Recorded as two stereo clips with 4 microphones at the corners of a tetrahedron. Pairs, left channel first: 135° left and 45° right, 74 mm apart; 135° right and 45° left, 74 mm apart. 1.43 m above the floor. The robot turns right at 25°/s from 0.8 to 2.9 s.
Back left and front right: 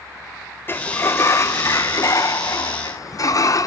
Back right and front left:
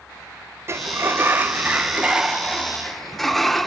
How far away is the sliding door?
About 0.6 m.